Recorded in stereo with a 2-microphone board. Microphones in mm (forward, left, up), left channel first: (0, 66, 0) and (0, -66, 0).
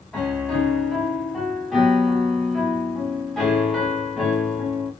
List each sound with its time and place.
0.1 s a piano: 5° left (ahead or behind), 1.8 m